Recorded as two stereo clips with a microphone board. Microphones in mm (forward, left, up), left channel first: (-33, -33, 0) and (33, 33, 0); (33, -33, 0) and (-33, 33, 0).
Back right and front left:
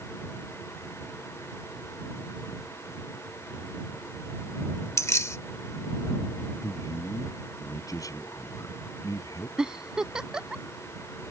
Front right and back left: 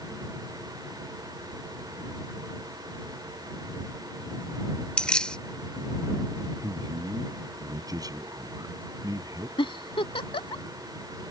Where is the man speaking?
175° left.